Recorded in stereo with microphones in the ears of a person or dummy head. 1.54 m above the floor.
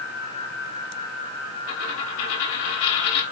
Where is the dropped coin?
70° left (ahead or behind), 3 m.